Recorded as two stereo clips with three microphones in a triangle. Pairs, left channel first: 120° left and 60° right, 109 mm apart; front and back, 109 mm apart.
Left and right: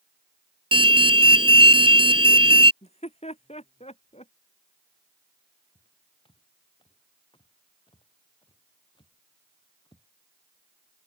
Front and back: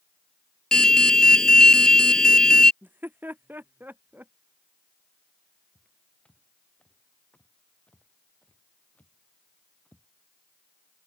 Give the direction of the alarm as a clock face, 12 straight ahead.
3 o'clock.